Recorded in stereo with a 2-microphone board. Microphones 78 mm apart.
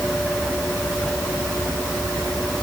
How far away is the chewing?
No chewing in this recording.